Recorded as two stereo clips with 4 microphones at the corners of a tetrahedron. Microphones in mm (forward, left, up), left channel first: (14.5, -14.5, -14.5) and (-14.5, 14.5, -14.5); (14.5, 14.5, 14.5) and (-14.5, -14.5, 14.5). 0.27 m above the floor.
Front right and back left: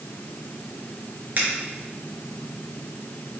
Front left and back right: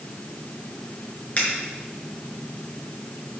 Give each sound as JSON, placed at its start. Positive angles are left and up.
{"t": 1.4, "sound": "a finger snap", "azimuth_deg": 95, "distance_m": 3.5}